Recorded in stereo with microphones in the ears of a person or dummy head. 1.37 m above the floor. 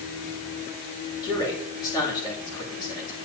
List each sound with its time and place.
1.2 s a man speaking: 20° left (ahead or behind), 2.5 m